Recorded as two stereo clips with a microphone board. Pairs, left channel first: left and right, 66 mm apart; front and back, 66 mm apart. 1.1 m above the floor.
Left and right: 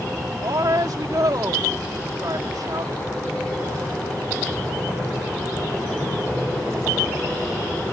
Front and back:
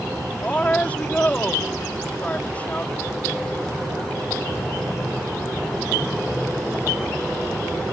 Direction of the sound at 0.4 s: 70° right.